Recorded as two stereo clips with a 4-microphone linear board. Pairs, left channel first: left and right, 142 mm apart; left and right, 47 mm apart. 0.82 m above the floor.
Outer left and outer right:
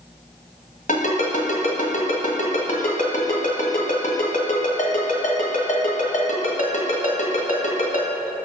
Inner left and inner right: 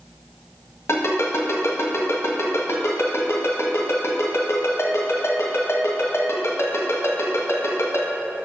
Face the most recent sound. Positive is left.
turn(degrees=70)  # may be behind; listen again after turning